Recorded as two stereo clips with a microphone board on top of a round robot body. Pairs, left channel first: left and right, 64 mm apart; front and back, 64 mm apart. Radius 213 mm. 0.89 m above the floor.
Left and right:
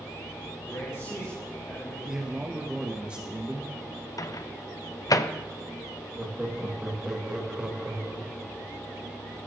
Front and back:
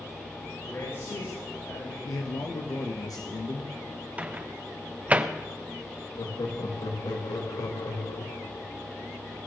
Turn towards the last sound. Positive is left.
turn(degrees=-10)